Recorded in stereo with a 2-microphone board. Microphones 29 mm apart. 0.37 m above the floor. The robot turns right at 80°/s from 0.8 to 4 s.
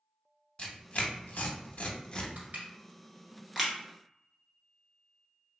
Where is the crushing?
80° right, 1.1 m; by 3.7 s 5° left (ahead or behind), 1.1 m.